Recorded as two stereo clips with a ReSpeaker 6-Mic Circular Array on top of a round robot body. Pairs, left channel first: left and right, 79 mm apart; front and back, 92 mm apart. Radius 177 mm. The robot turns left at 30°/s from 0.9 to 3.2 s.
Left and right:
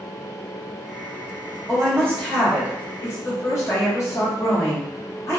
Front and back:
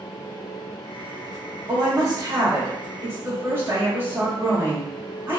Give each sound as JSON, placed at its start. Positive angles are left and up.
{"t": 1.7, "sound": "a woman speaking", "azimuth_deg": 170, "distance_m": 1.6}